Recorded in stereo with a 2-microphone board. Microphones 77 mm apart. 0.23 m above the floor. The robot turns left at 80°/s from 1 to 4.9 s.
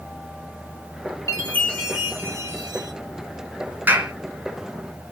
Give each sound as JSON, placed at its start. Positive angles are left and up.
{"t": 1.3, "sound": "a chime", "azimuth_deg": 45, "distance_m": 2.5}
{"t": 3.9, "sound": "a clap", "side_deg": -25, "distance_m": 2.5}